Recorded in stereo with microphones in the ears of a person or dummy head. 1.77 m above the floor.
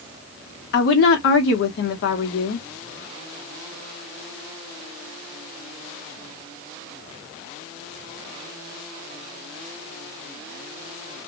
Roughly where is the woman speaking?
Left.